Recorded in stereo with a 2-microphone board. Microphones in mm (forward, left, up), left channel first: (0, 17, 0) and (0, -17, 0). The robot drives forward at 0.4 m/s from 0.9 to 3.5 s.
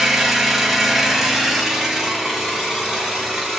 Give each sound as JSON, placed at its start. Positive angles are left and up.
{"t": 0.0, "sound": "an engine running", "side_deg": -10, "distance_m": 1.0}